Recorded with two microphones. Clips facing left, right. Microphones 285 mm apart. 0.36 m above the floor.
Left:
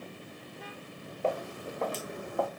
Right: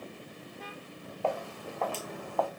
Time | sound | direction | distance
1.2 | footsteps | 20° left (ahead or behind) | 2 m